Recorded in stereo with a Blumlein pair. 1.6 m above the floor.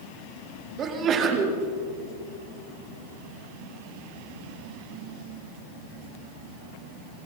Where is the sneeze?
30° right, 4 m.